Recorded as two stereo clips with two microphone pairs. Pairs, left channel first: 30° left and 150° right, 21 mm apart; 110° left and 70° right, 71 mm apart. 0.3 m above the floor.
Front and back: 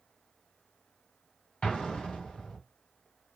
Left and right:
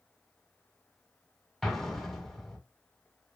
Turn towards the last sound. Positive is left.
turn(degrees=25)